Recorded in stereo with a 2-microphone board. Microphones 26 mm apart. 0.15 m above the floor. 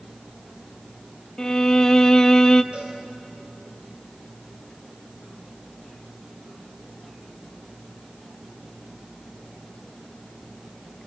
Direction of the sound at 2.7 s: 60° right (ahead or behind).